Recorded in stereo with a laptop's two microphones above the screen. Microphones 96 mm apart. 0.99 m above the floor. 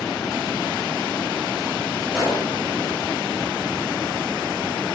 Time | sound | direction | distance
2.1 | a gunshot | 10° right (ahead or behind) | 6 m